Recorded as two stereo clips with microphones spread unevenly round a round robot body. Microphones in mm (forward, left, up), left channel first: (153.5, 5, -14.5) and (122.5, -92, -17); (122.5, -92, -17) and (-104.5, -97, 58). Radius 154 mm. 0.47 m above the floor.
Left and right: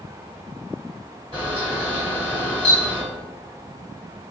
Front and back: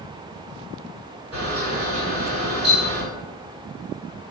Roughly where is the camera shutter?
Behind left.